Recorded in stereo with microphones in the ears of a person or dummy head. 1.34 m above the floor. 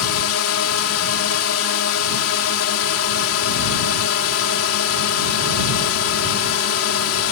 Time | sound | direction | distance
0.0 | a drone | 80° left | ?